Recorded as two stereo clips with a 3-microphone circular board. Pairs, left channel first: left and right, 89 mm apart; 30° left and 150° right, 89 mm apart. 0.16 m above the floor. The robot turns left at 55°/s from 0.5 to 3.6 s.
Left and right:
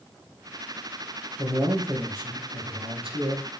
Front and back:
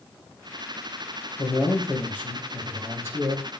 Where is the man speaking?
Straight ahead, 4 m; by 3.5 s 115° right, 4 m.